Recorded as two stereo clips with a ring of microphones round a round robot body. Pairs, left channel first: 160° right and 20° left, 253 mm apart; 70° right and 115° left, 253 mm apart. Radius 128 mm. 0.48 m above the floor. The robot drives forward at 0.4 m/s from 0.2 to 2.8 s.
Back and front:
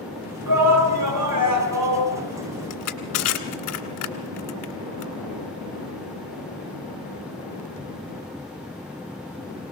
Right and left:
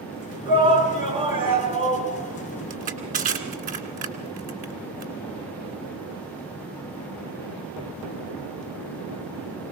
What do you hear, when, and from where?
0.5 s a shout: 40° left, 6 m; by 2.1 s 45° left, 5.5 m
2.7 s crushing: 175° left, 2 m